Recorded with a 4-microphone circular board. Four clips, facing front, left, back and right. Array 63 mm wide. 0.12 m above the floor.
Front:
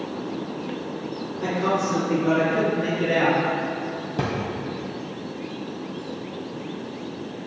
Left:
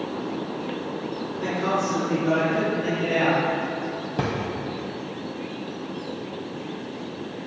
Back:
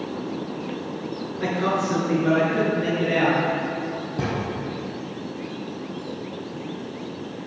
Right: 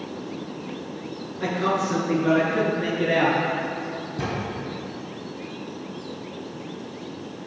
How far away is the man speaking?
About 1.9 m.